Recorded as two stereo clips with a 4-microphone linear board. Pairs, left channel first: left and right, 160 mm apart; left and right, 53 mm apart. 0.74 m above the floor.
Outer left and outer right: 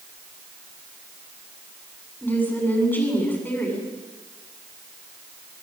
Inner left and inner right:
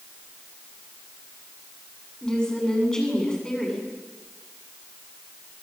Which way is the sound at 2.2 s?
10° left (ahead or behind).